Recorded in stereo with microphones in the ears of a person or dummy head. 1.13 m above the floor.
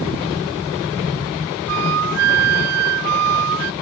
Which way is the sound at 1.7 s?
80° right.